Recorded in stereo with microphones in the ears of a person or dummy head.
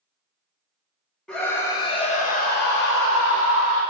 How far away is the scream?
About 1.3 m.